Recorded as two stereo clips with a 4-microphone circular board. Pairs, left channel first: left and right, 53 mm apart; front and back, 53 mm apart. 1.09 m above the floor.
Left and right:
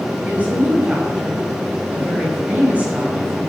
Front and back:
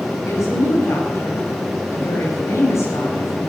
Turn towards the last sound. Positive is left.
turn(degrees=-25)